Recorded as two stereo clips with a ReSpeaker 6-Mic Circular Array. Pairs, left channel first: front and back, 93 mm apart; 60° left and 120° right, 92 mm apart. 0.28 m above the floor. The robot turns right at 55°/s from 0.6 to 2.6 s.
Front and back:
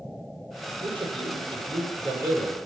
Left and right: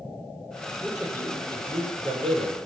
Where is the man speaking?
145° left, 8 m; by 2.6 s 120° right, 8 m.